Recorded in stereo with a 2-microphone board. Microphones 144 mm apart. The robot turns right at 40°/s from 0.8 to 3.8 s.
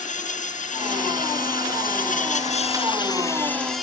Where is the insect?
60° left; by 3.8 s straight behind.